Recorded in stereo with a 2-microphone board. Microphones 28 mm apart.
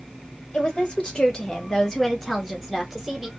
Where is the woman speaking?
40° left (ahead or behind), 1.7 m; by 3.3 s 10° right (ahead or behind), 1.6 m.